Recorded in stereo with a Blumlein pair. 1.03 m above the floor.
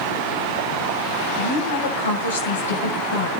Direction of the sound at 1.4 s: 65° left.